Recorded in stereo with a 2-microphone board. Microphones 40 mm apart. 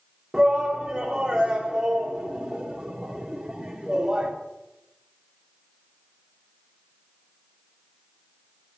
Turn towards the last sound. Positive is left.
turn(degrees=-15)  # may be behind; listen again after turning